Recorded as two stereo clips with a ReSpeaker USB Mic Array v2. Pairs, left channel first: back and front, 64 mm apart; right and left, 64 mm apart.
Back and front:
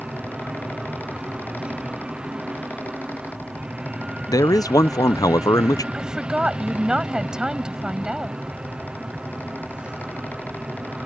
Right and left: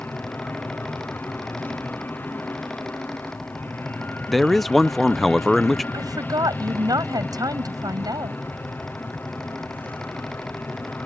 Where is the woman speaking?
80° left.